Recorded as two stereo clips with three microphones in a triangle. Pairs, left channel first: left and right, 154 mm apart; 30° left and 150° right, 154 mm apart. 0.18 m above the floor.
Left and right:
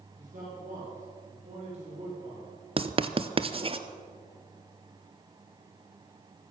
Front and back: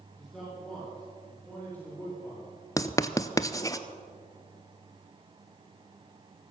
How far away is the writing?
About 0.7 m.